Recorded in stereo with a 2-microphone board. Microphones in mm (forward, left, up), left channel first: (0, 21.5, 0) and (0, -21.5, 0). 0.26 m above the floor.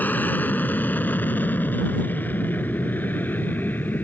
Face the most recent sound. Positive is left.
turn(degrees=45)  # may be behind; listen again after turning